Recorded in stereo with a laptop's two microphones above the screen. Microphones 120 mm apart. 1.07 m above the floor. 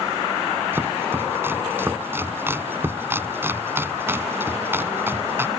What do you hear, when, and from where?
0.7 s chopping: 20° right (ahead or behind)